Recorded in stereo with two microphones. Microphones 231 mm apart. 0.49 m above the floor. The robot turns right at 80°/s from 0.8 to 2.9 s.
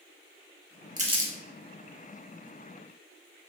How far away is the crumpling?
About 0.5 m.